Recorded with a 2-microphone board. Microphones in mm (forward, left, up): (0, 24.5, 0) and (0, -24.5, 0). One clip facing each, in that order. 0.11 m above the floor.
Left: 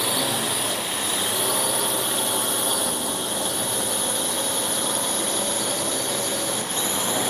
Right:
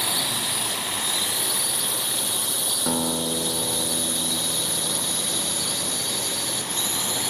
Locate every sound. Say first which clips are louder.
0.0 s a drone: left 3 dB; 45° left (ahead or behind); by 7.3 s 40° left (ahead or behind)
2.9 s a guitar: right 2 dB; 70° right (ahead or behind)